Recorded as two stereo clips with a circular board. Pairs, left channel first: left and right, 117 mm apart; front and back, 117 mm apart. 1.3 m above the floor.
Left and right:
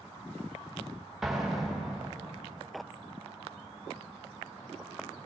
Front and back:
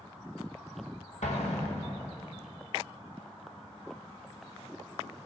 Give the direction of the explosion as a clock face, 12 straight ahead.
12 o'clock.